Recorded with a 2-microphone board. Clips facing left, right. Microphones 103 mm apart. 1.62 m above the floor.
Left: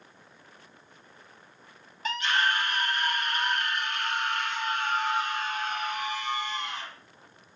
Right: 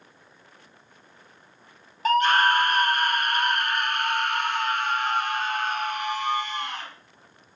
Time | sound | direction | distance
2.0 | a scream | 45° right (ahead or behind) | 0.7 m